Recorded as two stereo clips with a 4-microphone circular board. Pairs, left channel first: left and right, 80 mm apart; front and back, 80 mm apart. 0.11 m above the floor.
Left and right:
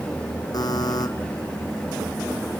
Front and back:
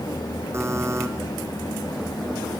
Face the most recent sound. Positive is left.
turn(degrees=125)